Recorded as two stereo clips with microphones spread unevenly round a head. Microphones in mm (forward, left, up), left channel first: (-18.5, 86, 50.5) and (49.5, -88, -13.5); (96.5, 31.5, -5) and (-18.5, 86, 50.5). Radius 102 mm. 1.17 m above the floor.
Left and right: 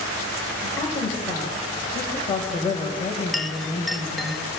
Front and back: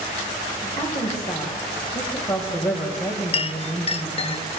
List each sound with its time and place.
0.6 s a woman speaking: 35° left, 5.5 m; by 4.3 s 55° left, 6 m
3.3 s a clink: 30° left, 0.8 m